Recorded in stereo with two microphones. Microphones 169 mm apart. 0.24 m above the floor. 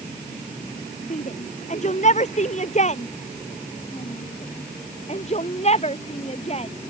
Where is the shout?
45° left (ahead or behind); by 6.7 s 40° left (ahead or behind).